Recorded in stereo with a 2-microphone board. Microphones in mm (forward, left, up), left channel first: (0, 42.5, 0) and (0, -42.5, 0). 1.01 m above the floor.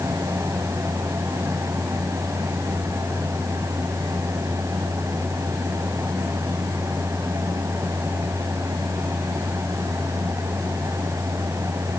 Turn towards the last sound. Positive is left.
No sound to turn to.